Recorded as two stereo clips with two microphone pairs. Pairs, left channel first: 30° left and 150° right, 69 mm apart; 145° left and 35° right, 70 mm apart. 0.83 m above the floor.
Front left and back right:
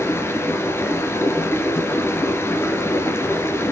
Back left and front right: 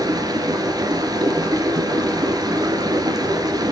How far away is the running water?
About 2.5 m.